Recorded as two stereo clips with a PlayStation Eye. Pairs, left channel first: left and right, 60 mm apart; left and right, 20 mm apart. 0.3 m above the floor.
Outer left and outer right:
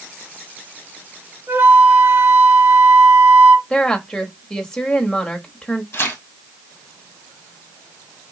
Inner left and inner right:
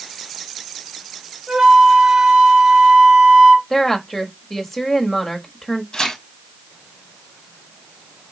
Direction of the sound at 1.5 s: 40° right (ahead or behind).